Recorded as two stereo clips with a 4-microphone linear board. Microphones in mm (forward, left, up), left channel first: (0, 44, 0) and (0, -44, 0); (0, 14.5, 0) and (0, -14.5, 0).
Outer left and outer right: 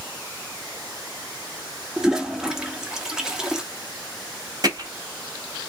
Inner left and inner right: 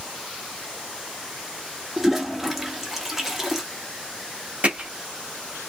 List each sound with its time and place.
2.0 s a toilet flushing: 10° right (ahead or behind), 1.2 m
4.6 s hammering: 45° right (ahead or behind), 3.5 m